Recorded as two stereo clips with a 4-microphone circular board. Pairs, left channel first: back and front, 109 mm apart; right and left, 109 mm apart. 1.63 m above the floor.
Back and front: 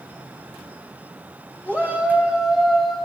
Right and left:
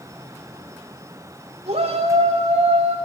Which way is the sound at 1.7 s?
100° left.